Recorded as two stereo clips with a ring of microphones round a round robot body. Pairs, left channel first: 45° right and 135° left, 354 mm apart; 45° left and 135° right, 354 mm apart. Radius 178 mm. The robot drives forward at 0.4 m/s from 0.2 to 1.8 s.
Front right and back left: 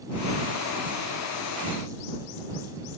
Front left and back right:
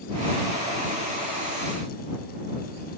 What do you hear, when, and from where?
Only background noise.